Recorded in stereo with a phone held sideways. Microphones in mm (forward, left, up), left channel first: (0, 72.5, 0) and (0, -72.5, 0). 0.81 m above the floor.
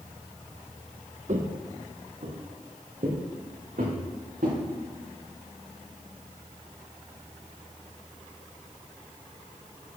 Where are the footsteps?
60° right (ahead or behind), 1.4 m; by 4.6 s 80° right, 5 m.